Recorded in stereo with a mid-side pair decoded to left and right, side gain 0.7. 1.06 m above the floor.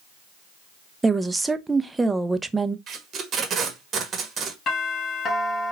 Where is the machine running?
I don't hear a machine running.